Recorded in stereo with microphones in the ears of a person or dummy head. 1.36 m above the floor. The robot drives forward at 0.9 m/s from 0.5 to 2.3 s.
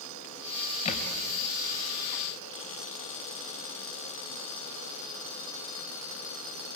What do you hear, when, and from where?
0.8 s a thud: 35° left (ahead or behind), 3.5 m